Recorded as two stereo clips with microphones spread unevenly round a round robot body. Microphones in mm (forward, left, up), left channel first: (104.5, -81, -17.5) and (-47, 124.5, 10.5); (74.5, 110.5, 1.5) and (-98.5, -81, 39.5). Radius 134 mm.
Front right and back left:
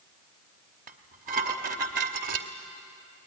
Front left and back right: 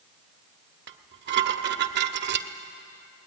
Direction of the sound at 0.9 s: 175° right.